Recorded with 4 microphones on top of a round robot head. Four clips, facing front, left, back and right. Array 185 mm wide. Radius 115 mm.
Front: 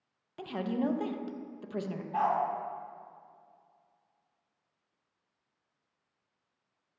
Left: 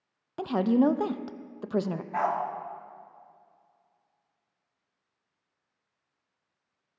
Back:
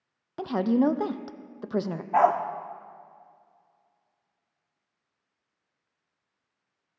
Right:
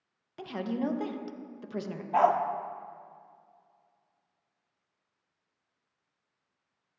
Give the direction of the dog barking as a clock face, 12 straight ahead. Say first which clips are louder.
Right 5 dB, back 8 dB; 5 o'clock.